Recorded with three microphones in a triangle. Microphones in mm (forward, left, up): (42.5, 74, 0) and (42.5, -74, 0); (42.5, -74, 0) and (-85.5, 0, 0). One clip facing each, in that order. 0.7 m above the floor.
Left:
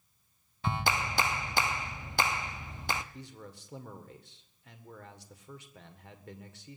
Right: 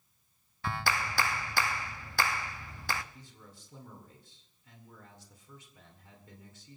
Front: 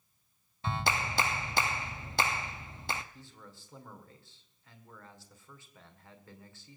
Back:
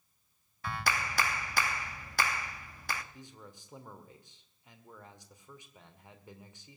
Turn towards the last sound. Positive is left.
turn(degrees=80)